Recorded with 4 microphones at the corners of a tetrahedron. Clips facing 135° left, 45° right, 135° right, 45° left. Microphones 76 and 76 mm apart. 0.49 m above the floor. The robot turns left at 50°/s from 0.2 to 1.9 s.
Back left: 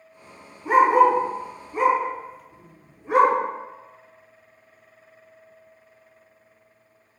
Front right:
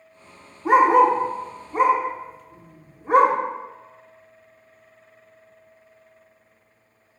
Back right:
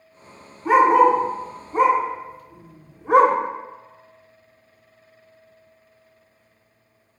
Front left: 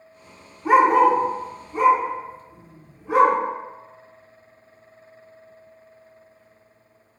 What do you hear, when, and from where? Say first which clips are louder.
0.7 s a dog barking: front right 1 dB, back right 1 dB; 35° right, 0.6 m; by 3.4 s 100° right, 0.6 m